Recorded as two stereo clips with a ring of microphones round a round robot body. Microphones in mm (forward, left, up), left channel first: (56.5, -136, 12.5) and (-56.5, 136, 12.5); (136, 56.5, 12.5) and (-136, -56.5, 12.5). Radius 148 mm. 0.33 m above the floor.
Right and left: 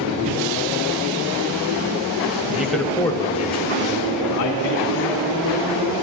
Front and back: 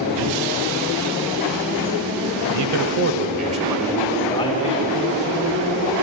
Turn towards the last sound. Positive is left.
turn(degrees=-35)